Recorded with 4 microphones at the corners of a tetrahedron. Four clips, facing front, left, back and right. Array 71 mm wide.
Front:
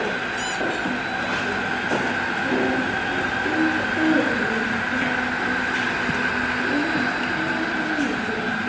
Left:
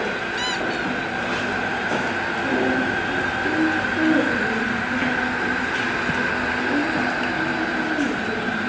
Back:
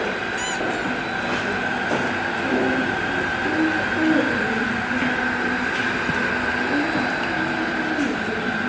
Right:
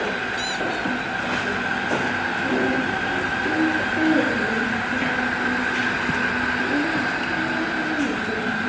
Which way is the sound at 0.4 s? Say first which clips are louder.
Left 1 dB, even; 115° left.